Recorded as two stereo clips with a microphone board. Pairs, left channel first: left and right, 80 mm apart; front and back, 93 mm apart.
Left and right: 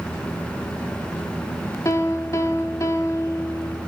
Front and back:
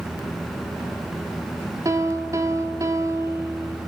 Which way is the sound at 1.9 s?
135° left.